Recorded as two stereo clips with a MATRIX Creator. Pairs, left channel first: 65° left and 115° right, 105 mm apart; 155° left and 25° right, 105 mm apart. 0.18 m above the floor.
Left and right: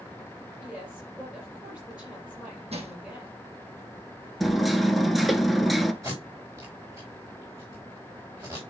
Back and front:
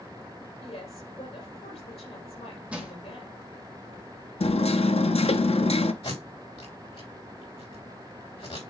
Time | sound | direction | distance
0.6 | a woman speaking | 165° left | 4.5 m
2.7 | crushing | 100° right | 1.8 m
4.4 | hammering | 160° left | 0.6 m
6.0 | tape being pulled | straight behind | 4 m